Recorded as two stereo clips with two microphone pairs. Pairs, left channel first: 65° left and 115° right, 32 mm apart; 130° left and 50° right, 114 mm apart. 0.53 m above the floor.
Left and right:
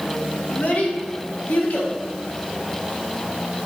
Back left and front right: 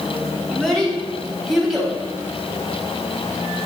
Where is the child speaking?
40° left, 3 m; by 1.9 s 35° left, 2.5 m.